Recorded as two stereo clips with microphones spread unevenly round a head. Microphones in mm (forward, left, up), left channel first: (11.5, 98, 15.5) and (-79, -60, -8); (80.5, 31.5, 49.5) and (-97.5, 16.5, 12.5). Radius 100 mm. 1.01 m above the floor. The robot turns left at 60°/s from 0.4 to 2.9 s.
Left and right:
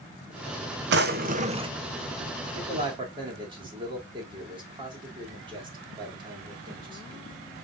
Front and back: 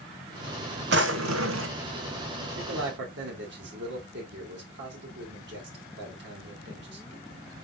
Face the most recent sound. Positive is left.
turn(degrees=180)